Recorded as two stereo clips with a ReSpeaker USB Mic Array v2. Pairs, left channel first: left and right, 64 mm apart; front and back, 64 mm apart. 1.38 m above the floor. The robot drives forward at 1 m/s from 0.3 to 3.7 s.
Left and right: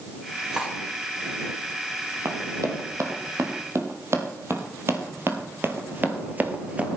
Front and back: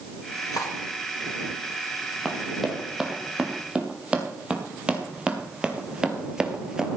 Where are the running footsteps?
85° right, 3 m; by 7.0 s 120° right, 1.4 m.